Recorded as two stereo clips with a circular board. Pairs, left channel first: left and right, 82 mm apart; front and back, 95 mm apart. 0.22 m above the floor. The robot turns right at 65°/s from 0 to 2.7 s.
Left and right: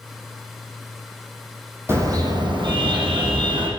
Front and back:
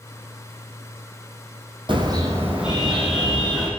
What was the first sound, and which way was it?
A car horn, 150° right.